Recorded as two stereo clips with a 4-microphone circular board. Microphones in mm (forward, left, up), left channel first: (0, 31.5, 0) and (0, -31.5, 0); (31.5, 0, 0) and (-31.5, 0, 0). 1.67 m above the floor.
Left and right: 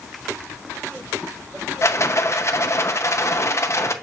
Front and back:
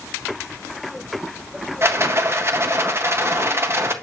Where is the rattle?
130° left, 0.6 m.